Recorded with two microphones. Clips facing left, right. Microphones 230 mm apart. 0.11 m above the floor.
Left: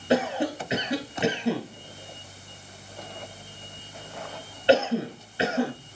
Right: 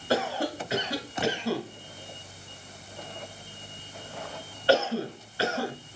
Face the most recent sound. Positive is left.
turn(degrees=20)  # may be behind; listen again after turning